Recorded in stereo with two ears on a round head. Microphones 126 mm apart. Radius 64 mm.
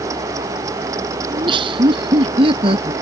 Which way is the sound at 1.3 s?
35° right (ahead or behind).